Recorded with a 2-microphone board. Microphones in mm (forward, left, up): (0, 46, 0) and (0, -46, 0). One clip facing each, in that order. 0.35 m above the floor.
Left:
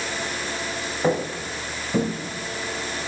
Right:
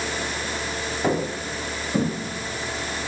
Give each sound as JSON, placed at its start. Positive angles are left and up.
{"t": 1.0, "sound": "footsteps", "side_deg": 15, "distance_m": 1.5}